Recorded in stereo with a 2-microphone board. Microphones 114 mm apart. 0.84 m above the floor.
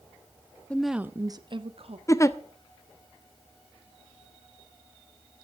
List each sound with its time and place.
0.7 s a woman speaking: 10° left (ahead or behind), 0.9 m; by 2.0 s 60° right (ahead or behind), 1.5 m
2.1 s a giggle: 25° left (ahead or behind), 0.8 m